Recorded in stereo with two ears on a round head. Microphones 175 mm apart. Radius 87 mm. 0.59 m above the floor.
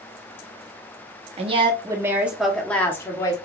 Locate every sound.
1.4 s a woman speaking: 30° right (ahead or behind), 0.9 m; by 3.4 s 20° left (ahead or behind), 1.2 m